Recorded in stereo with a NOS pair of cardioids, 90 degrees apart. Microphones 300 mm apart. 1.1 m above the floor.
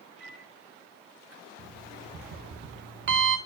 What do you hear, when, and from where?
0.2 s a microwave: 5° right, 2.5 m
1.6 s an alarm clock: 40° right, 1.1 m